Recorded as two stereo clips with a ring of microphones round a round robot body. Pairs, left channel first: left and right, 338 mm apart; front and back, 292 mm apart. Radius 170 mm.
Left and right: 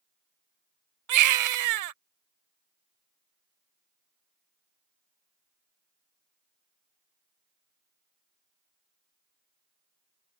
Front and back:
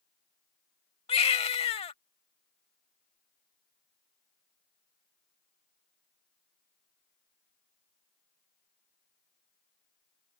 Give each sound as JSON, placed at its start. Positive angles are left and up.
{"t": 1.1, "sound": "a baby crying", "azimuth_deg": -70}